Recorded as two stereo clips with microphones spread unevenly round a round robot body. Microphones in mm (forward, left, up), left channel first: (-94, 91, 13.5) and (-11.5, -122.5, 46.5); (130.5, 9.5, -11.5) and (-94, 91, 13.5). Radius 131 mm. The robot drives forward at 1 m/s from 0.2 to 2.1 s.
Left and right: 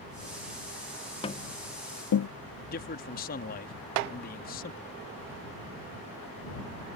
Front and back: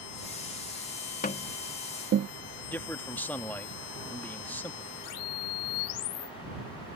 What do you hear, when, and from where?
1.2 s tapping: 40° left; by 2.3 s 120° left
2.6 s a man speaking: 60° left